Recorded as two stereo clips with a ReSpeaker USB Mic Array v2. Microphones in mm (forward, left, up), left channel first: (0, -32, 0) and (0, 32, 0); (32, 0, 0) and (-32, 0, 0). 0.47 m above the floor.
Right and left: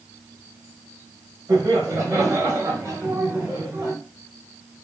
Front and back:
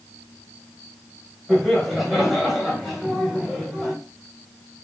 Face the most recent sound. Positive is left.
turn(degrees=85)